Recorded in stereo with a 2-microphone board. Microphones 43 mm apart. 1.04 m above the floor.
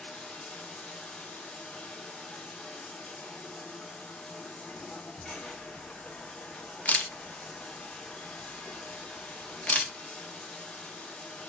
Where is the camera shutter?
35° left (ahead or behind), 0.5 m.